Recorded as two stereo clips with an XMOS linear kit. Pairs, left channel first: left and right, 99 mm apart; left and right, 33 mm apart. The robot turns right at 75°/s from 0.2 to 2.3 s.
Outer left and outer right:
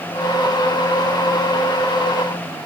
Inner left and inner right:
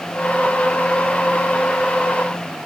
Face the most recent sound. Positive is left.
No sound to turn to.